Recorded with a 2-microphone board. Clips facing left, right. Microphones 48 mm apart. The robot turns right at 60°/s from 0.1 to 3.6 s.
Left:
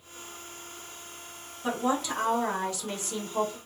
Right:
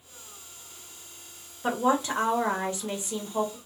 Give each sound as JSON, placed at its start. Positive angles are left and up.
{"t": 1.6, "sound": "a woman speaking", "azimuth_deg": -115, "distance_m": 0.9}